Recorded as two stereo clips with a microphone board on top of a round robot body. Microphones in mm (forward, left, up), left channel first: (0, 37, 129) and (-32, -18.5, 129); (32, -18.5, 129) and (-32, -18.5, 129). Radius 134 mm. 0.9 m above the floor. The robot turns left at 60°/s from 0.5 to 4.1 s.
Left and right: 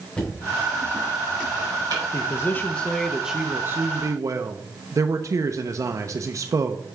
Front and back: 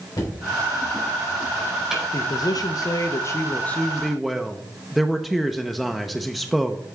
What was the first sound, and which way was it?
Knocking, 15° right.